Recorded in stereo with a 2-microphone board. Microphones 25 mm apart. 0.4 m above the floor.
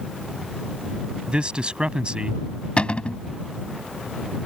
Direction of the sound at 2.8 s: 50° left (ahead or behind).